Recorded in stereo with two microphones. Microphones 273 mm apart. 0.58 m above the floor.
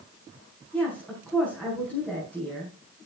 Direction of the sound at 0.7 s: 5° left (ahead or behind).